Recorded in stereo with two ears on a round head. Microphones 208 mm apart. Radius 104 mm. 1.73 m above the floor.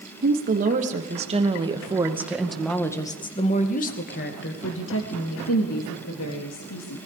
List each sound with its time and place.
0.2 s a woman speaking: 40° right (ahead or behind), 3 m; by 7.0 s 75° left (ahead or behind), 4 m